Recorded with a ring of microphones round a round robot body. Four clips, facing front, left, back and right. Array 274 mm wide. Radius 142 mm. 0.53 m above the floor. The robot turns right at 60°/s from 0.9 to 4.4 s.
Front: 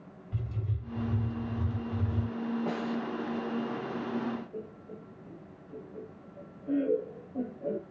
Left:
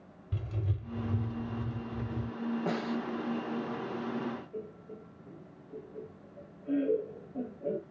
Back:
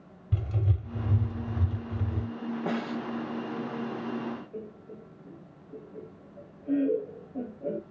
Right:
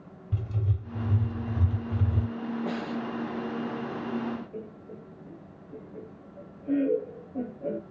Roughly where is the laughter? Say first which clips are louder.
Right 2 dB, back 1 dB; right.